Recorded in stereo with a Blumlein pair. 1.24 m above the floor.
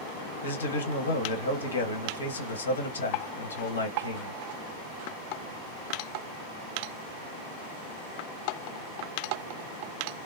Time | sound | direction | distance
0.4 | a man speaking | 70° left | 1.3 m